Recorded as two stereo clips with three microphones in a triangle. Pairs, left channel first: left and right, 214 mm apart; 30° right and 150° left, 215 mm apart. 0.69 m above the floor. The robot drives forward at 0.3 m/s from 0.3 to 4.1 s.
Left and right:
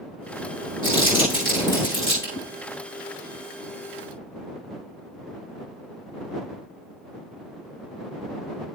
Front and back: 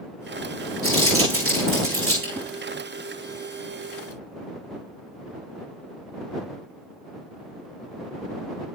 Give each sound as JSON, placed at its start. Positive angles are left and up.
{"t": 0.8, "sound": "crumpling", "azimuth_deg": 160, "distance_m": 9.0}
{"t": 2.3, "sound": "a whoosh", "azimuth_deg": 80, "distance_m": 2.5}